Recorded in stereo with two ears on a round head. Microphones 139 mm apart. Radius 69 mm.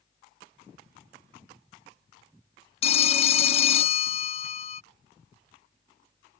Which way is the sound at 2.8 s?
40° left (ahead or behind).